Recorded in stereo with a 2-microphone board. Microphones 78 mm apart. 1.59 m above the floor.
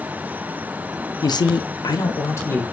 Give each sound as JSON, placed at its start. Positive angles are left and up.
{"t": 1.2, "sound": "a man speaking", "side_deg": 55, "distance_m": 0.5}